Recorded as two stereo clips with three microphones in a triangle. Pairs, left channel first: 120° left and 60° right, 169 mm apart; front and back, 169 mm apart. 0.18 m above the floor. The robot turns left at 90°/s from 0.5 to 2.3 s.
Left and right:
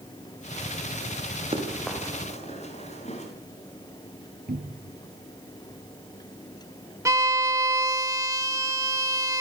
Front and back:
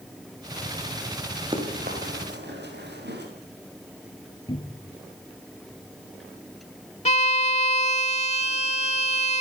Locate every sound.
1.5 s running footsteps: 120° right, 8.5 m; by 3.2 s 170° left, 9.5 m
4.5 s a cupboard door: 60° right, 3 m
7.0 s a violin: straight ahead, 0.6 m